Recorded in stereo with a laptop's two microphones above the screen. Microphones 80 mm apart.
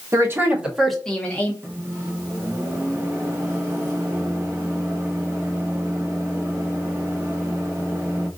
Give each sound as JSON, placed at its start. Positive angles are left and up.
{"t": 0.1, "sound": "a woman speaking", "side_deg": -35, "distance_m": 0.9}
{"t": 1.6, "sound": "a microwave", "side_deg": -35, "distance_m": 1.3}